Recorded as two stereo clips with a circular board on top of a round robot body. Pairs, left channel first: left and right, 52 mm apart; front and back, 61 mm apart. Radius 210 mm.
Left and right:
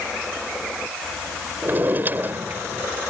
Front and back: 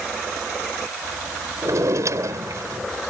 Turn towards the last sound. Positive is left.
turn(degrees=-145)